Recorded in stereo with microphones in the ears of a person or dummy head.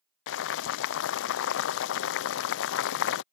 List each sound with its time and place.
0.3 s boiling: 75° left (ahead or behind)